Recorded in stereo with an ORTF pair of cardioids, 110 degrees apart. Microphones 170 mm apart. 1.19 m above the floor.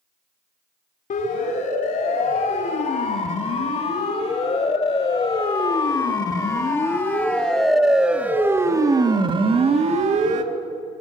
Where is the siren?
50° left, 5 m; by 10.4 s 50° right, 2 m.